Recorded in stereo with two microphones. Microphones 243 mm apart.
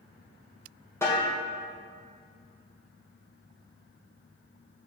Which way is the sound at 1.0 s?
10° left (ahead or behind).